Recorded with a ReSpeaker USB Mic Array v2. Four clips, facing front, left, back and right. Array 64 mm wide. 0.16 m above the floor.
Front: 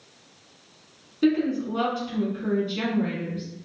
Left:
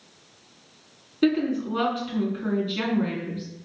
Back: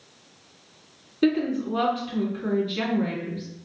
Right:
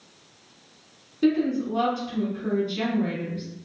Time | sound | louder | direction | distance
1.2 | a woman speaking | even, even | 105° left | 1.3 m